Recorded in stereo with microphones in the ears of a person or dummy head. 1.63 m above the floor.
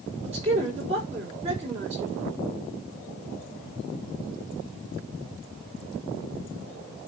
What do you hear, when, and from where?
0.2 s a man speaking: 35° right (ahead or behind), 4 m